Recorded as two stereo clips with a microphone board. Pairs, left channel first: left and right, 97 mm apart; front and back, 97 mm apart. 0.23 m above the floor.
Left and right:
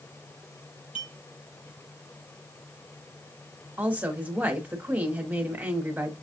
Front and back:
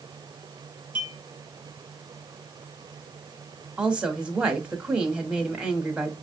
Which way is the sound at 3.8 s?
120° right.